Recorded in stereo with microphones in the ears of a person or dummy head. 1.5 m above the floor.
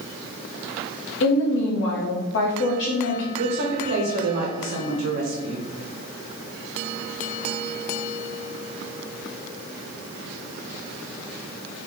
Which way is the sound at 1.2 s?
65° left (ahead or behind).